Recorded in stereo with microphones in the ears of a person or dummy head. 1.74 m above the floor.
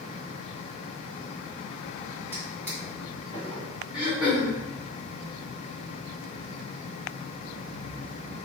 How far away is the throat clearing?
About 2 m.